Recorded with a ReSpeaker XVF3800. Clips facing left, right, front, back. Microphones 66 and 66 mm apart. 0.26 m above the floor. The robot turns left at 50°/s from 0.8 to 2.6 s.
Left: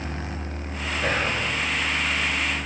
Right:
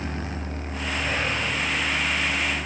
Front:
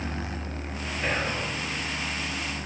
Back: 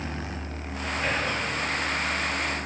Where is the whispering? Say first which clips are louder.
Left 3 dB, even; 85° left, 4 m; by 1.5 s 65° left, 4 m.